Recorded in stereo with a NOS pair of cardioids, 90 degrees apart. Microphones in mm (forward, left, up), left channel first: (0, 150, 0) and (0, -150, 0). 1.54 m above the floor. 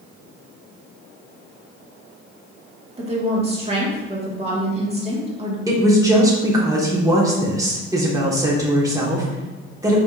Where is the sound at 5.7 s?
10° right, 1.5 m.